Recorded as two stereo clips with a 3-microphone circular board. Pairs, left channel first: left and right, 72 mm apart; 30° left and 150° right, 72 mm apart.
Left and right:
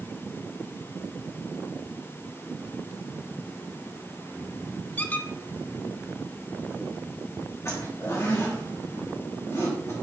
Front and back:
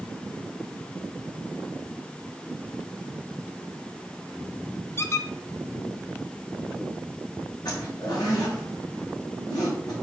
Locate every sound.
5.0 s a squeak: 35° left, 0.5 m
7.7 s a zipper: 45° left, 4.5 m